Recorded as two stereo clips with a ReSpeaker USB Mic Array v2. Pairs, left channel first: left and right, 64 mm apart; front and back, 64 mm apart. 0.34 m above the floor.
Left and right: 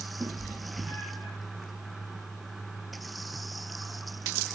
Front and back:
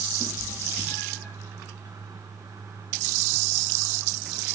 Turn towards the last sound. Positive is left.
turn(degrees=-60)